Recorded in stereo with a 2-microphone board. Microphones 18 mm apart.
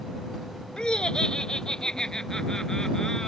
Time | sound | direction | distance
0.8 | laughter | 55° left (ahead or behind) | ?